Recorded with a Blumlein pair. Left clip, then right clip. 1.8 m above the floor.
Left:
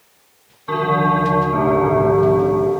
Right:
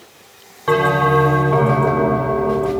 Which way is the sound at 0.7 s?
40° right.